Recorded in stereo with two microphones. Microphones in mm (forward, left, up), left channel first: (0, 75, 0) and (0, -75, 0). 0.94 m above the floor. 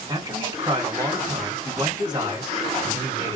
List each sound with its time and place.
0.1 s a man speaking: 30° right (ahead or behind), 1.7 m